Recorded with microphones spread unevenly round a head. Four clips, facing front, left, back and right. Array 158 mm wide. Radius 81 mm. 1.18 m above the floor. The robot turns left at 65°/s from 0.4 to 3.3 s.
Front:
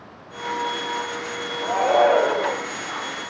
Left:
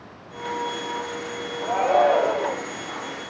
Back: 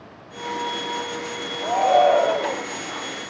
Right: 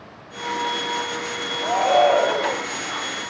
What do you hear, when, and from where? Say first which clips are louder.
1.6 s a shout: right 2 dB, back 1 dB; 35° left, 4.5 m; by 2.6 s 30° right, 4.5 m